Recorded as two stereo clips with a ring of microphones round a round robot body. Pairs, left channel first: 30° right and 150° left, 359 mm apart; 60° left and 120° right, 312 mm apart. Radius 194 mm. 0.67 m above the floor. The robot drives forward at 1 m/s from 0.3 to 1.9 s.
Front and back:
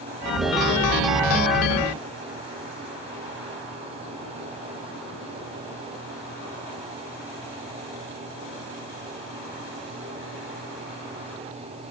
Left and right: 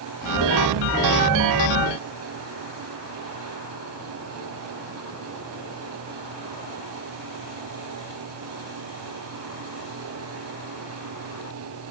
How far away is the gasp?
I don't hear a gasp.